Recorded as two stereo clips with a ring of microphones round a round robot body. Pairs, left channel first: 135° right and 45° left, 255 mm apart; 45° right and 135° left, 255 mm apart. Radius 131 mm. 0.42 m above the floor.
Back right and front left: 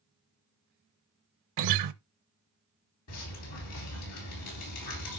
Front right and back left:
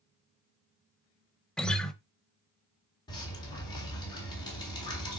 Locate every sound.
1.6 s a guitar: 40° left, 0.7 m
3.1 s dripping: 120° right, 4 m